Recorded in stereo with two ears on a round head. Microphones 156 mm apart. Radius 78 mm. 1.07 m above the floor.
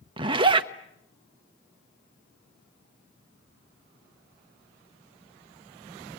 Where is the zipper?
30° right (ahead or behind), 1.1 m.